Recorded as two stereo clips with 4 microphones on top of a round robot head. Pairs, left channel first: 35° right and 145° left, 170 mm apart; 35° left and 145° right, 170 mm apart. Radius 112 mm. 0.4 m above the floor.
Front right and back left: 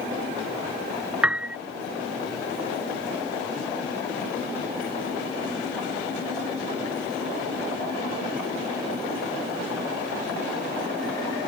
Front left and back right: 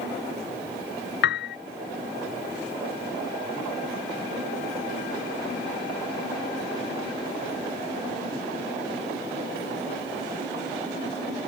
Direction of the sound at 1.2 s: 60° left.